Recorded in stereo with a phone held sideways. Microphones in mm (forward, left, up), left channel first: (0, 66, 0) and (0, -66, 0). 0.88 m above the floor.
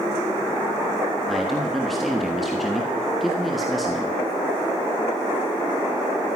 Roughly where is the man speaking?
Centre.